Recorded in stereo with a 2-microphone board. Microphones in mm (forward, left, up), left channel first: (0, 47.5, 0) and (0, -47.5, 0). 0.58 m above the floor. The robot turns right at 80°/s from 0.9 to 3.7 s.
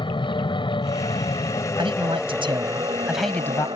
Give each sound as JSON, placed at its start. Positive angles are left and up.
{"t": 0.0, "sound": "an aircraft", "azimuth_deg": 70}
{"t": 1.8, "sound": "a man speaking", "azimuth_deg": -115}